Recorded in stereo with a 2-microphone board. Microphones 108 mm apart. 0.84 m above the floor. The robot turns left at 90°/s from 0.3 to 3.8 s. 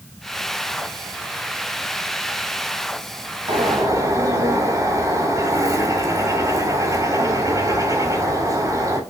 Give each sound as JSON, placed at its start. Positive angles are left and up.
{"t": 3.5, "sound": "a bird", "side_deg": -60, "distance_m": 3.0}